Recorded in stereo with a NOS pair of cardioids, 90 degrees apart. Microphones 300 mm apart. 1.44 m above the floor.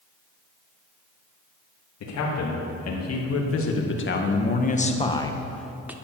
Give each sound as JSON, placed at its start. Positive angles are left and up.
{"t": 2.0, "sound": "a man speaking", "azimuth_deg": 65, "distance_m": 3.0}